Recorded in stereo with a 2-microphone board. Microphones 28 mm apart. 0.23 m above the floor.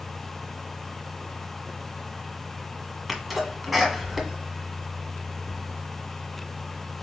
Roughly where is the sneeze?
Centre.